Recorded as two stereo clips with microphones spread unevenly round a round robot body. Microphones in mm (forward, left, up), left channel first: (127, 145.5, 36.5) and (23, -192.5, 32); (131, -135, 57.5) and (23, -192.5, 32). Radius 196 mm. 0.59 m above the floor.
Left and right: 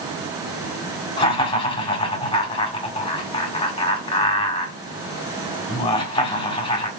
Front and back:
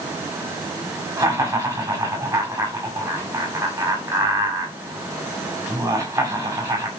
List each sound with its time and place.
1.2 s laughter: 150° left, 1.5 m